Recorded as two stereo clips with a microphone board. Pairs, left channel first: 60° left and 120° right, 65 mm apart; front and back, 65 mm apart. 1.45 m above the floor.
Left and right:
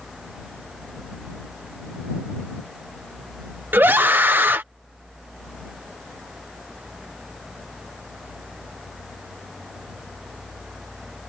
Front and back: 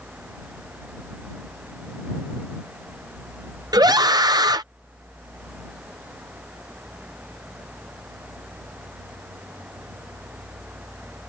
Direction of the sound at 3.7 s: Straight behind.